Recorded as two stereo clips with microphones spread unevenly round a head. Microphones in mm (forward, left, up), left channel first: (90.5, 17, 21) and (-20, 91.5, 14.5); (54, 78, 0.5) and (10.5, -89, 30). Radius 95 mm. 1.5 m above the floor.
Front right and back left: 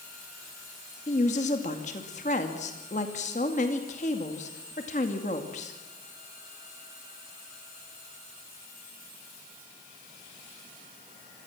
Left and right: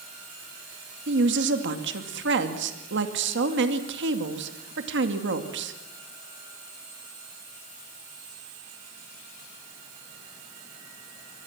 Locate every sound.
1.1 s a woman speaking: 90° right, 2.5 m